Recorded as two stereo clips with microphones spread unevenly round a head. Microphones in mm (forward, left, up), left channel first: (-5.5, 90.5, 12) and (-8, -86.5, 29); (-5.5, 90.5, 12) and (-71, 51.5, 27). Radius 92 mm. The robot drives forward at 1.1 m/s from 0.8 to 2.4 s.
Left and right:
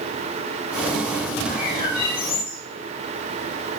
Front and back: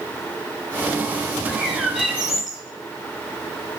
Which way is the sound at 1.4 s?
125° left.